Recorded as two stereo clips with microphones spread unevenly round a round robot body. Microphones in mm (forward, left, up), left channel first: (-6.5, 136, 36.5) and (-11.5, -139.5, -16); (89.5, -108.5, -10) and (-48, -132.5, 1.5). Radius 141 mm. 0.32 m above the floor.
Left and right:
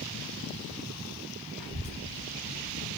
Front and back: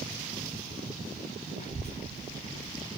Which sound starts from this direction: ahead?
A child speaking, at 1.6 s.